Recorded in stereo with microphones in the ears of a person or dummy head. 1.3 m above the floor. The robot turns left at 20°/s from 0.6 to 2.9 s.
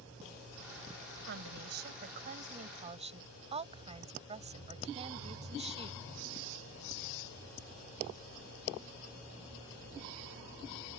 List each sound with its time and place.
1.3 s a woman speaking: 115° right; by 6.0 s 150° right